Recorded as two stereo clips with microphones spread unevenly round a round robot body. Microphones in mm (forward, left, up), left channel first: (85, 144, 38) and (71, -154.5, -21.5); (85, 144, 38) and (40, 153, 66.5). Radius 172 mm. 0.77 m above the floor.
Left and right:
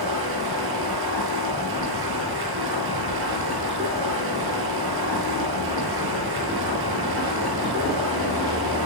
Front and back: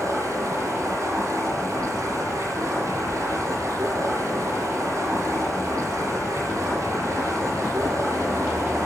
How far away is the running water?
About 8.5 m.